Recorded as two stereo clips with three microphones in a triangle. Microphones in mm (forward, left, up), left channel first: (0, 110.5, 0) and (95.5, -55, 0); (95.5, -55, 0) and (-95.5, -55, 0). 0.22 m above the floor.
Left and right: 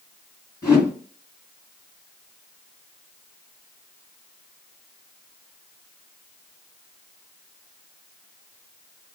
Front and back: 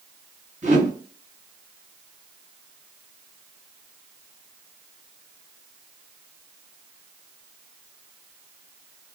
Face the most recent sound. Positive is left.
turn(degrees=-170)